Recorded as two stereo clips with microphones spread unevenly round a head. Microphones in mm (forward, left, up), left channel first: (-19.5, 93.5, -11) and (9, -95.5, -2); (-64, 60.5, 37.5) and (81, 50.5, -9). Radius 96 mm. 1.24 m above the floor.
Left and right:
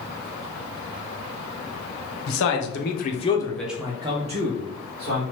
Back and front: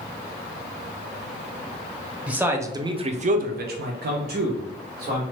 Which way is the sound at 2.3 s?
75° left.